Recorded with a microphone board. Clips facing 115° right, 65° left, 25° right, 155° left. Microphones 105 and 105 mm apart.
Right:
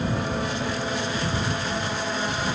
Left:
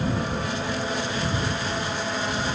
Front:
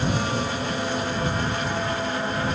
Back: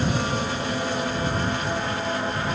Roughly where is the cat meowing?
I don't hear a cat meowing.